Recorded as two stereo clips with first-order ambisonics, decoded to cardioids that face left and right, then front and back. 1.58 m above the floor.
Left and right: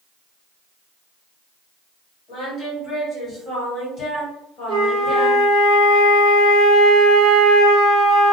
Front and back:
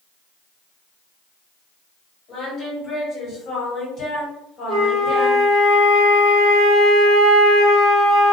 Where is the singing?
35° left, 1.6 m.